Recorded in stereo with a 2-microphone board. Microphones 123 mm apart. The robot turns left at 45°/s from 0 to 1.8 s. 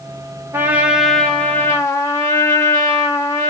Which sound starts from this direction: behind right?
A trumpet, at 0.5 s.